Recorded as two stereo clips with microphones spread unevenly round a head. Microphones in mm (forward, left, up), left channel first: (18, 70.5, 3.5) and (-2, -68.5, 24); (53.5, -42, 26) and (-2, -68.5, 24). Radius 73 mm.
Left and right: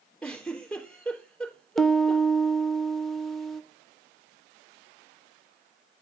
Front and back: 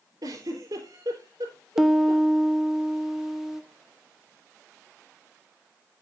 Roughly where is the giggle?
Behind.